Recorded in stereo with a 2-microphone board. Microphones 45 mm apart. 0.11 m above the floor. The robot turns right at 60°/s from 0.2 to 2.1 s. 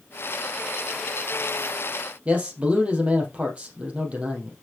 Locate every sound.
2.2 s a man speaking: 25° right (ahead or behind), 3 m